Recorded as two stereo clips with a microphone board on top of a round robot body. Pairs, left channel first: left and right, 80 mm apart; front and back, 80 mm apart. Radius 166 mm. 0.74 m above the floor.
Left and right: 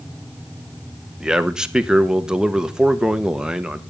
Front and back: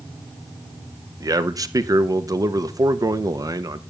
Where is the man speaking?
170° right, 1.3 m.